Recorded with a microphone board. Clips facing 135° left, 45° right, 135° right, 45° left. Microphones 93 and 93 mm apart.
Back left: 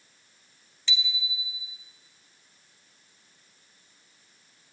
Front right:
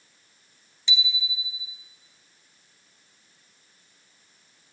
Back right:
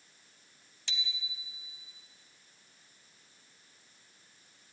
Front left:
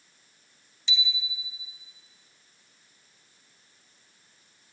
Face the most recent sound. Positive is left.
turn(degrees=-115)